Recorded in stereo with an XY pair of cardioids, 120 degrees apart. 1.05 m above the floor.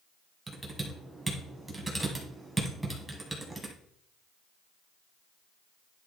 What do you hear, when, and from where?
0.5 s typing on a keyboard: 10° right, 2 m